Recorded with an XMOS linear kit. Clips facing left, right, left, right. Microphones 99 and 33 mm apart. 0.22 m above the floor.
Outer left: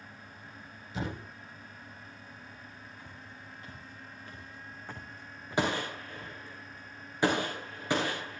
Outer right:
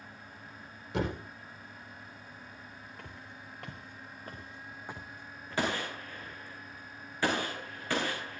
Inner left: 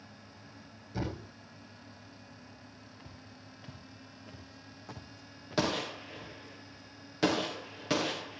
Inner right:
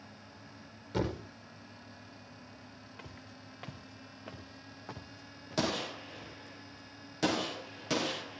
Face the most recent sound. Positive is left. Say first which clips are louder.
# outer left 2 dB, inner left 2 dB
turn(degrees=20)  # may be behind; listen again after turning